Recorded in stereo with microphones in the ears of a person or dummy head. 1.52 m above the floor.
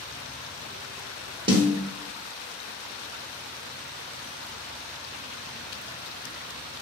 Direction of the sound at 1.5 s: 30° right (ahead or behind).